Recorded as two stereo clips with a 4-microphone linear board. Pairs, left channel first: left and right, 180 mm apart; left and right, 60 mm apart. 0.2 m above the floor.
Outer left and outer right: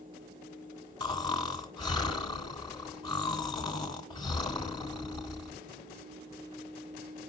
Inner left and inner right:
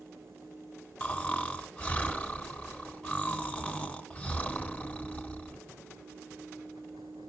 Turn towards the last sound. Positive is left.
turn(degrees=25)  # may be behind; listen again after turning